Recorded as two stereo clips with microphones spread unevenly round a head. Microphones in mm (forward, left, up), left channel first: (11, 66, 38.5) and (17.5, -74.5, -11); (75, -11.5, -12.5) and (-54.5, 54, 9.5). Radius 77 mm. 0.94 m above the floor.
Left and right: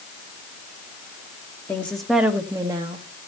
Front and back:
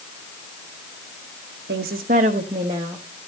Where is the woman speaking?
Straight behind, 1.0 m; by 3.0 s 125° right, 1.1 m.